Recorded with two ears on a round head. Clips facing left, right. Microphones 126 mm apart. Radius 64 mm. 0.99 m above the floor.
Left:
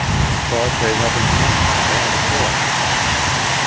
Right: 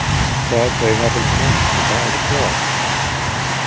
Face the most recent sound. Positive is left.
turn(degrees=-15)  # may be behind; listen again after turning